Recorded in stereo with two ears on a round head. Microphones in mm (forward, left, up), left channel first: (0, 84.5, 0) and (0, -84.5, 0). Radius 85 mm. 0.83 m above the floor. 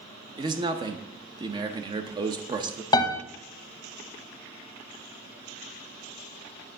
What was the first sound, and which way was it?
A man speaking, 25° right (ahead or behind).